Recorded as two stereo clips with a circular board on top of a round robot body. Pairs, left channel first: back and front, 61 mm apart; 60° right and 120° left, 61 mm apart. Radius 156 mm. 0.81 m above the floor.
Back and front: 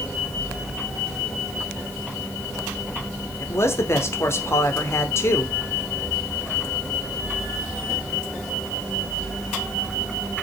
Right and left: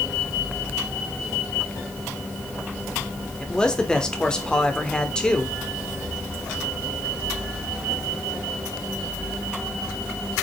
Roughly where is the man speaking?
Behind right.